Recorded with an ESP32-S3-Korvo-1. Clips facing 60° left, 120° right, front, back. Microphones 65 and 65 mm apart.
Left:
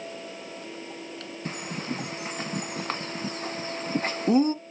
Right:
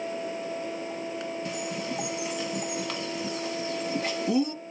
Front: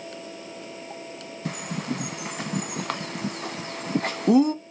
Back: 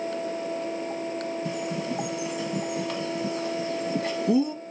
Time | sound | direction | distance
1.4 | a bird | 15° left | 0.7 m